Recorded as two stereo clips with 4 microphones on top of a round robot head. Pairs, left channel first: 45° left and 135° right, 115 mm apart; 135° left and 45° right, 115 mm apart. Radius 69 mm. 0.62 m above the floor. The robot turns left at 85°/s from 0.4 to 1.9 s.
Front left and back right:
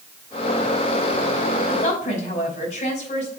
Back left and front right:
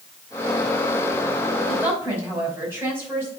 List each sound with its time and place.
1.7 s a woman speaking: 45° left, 5 m; by 3.3 s 25° left, 5 m